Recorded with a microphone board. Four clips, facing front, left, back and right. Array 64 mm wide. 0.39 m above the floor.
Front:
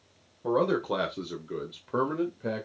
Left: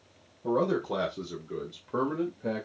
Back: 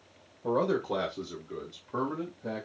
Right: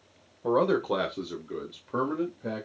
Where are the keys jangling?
I don't hear keys jangling.